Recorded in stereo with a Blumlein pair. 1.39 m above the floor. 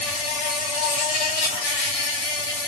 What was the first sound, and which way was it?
An insect, 45° left.